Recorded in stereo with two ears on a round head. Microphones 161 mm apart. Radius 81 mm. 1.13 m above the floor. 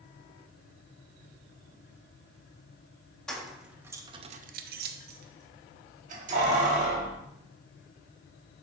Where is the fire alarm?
I don't hear a fire alarm.